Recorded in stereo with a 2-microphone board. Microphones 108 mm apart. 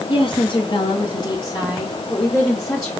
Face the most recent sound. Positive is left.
turn(degrees=20)  # may be behind; listen again after turning